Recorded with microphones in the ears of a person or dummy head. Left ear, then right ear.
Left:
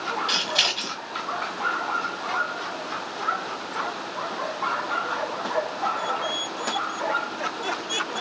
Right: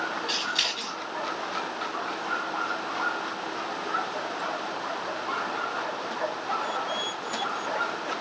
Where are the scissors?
10° left (ahead or behind), 1.5 m.